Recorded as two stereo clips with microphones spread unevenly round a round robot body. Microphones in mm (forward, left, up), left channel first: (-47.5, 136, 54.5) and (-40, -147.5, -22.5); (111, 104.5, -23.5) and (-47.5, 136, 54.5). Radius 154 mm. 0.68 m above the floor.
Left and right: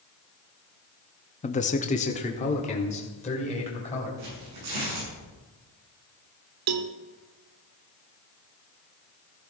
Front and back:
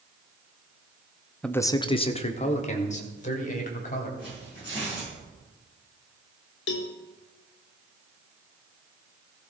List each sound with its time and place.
1.4 s a man speaking: 15° left, 0.7 m; by 4.1 s 20° left, 3.5 m
4.2 s tearing paper: 80° right, 6.5 m
6.7 s a cowbell: 45° right, 0.6 m